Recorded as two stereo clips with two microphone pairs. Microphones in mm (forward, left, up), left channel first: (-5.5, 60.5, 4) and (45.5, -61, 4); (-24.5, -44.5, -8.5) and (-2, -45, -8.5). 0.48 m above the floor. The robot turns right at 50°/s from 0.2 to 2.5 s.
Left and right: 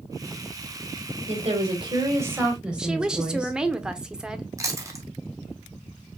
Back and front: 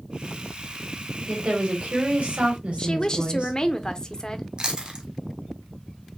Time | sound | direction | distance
1.3 | a woman speaking | 45° right | 2.5 m
2.8 | a woman speaking | 150° right | 0.9 m
4.6 | chewing | 20° right | 1.3 m